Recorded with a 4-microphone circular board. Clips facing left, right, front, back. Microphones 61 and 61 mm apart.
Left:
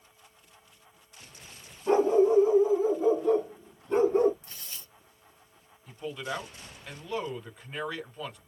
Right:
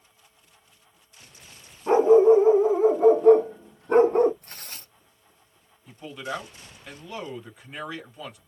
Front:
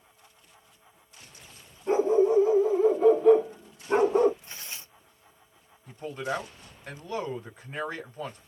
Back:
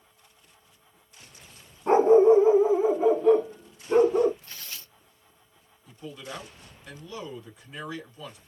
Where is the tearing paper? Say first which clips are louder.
Right 3 dB, front 1 dB; 65° right, 0.6 m.